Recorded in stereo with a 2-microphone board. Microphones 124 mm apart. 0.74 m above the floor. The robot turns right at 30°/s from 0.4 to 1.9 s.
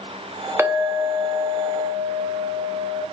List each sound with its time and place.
0.6 s a clink: 155° right, 0.5 m; by 3.0 s 115° right, 0.5 m